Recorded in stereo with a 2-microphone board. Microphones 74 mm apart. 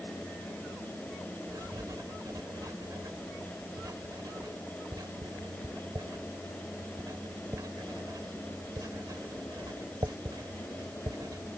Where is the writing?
60° right (ahead or behind).